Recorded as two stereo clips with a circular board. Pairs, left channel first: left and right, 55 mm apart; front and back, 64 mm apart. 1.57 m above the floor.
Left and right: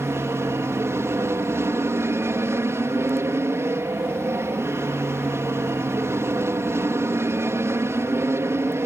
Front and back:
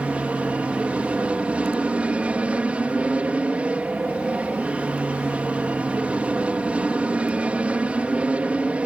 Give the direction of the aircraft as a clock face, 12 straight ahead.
4 o'clock.